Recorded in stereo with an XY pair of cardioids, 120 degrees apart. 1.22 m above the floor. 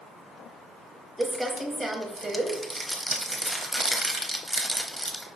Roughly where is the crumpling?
Ahead.